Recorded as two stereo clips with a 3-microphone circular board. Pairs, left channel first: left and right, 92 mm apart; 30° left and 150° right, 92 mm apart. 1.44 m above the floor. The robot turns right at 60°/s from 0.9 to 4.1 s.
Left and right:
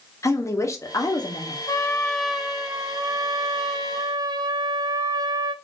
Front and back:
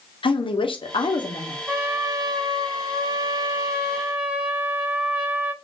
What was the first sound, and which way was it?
A woman speaking, 40° left.